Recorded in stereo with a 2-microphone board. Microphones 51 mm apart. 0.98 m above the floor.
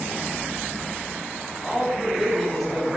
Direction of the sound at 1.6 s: 5° left (ahead or behind).